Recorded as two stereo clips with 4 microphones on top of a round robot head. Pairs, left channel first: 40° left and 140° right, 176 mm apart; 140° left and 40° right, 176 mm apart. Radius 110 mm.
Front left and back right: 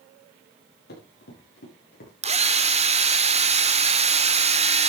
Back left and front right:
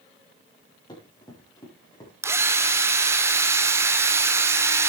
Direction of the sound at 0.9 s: 75° left.